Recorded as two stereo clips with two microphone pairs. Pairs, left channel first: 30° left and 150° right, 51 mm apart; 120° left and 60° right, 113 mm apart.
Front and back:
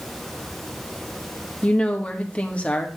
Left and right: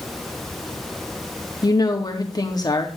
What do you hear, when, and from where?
1.6 s a woman speaking: 80° left, 1.5 m